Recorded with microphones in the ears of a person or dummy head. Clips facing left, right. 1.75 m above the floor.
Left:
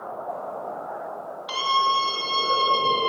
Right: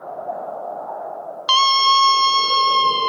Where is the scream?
85° right, 1.5 m; by 3.1 s 60° right (ahead or behind), 3 m.